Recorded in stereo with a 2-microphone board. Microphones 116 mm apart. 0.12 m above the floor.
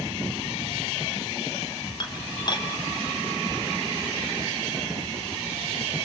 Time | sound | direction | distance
2.0 | dishes clattering | 40° left (ahead or behind) | 2 m